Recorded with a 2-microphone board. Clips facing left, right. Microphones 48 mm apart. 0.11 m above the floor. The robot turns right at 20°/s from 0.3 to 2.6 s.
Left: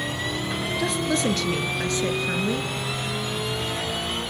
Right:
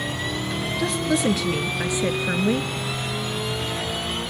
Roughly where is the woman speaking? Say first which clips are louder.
Right 2 dB; behind.